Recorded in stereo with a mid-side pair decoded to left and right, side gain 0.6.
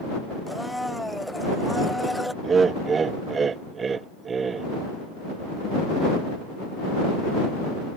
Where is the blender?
5° left.